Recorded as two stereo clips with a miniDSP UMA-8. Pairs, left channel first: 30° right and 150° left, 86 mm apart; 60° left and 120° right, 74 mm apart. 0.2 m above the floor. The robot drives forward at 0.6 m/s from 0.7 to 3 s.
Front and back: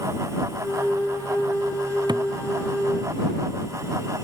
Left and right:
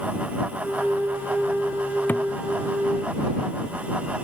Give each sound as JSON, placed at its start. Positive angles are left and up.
{"t": 2.1, "sound": "a thud", "azimuth_deg": 125}